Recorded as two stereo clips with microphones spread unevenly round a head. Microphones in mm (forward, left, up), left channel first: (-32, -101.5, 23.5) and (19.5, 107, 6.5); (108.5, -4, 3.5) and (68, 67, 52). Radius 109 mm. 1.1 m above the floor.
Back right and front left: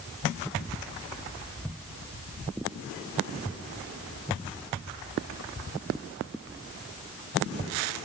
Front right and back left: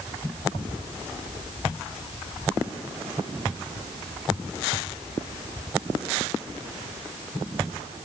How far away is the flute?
I don't hear a flute.